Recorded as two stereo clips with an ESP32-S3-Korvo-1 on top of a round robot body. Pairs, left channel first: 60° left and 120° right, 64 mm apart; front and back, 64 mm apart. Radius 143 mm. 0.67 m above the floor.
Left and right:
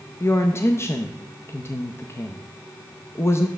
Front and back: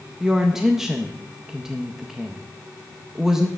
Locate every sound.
0.2 s a woman speaking: 100° left, 0.7 m